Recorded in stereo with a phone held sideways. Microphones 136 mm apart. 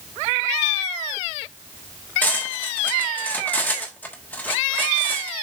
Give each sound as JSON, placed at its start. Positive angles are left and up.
{"t": 2.2, "sound": "cutlery clinking", "side_deg": 15, "distance_m": 1.4}